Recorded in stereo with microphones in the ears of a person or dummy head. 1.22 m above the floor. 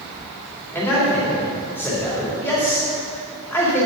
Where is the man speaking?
10° left (ahead or behind), 3 m.